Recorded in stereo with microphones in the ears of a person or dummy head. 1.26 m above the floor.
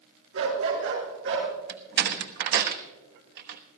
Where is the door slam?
60° right (ahead or behind), 1.1 m.